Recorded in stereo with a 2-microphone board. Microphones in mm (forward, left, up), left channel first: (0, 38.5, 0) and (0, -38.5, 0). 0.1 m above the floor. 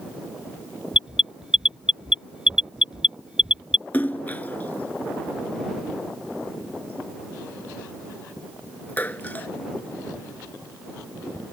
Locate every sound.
0.9 s an alarm: 10° right (ahead or behind)
3.9 s a splash: 25° left (ahead or behind)